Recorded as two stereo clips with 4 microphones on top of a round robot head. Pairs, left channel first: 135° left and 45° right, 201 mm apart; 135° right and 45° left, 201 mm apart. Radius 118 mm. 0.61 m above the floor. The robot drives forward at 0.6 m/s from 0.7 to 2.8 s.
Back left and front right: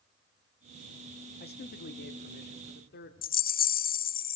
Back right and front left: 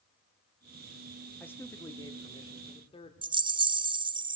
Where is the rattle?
105° left, 0.7 m.